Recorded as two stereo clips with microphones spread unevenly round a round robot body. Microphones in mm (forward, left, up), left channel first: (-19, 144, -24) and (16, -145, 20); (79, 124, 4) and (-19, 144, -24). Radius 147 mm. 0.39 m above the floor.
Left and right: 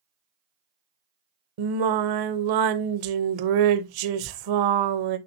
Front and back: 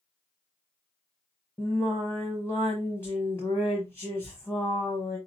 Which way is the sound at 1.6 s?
95° right.